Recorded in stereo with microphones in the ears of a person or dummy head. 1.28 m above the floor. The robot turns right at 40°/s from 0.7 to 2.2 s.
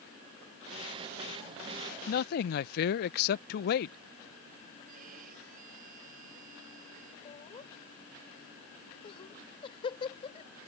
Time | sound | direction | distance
2.1 | a man speaking | 45° left (ahead or behind) | ?
4.9 | a violin | 50° right (ahead or behind) | ?
7.2 | laughter | 30° left (ahead or behind) | ?